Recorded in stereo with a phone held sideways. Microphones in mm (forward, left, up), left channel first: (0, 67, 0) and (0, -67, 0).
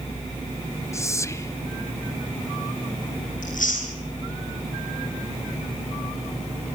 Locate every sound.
0.9 s whispering: 20° left (ahead or behind), 1.0 m
3.4 s chewing: 80° left, 8.5 m